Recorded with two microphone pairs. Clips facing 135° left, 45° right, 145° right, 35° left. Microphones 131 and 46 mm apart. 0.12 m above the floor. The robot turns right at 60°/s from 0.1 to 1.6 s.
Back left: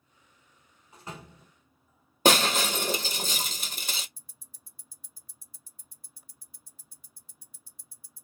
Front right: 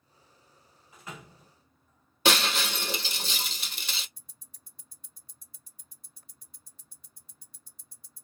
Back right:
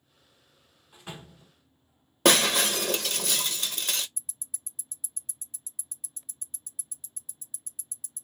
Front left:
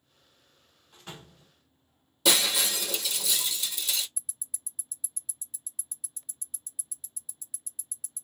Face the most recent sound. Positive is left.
turn(degrees=-140)